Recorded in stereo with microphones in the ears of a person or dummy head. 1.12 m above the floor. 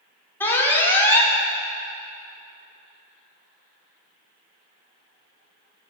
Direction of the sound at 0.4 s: 15° left (ahead or behind).